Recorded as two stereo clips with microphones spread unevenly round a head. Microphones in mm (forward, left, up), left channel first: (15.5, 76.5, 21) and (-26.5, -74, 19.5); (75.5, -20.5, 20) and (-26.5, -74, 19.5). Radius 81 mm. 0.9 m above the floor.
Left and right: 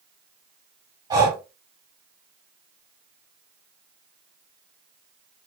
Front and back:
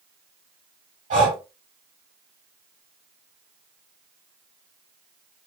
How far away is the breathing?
About 2 m.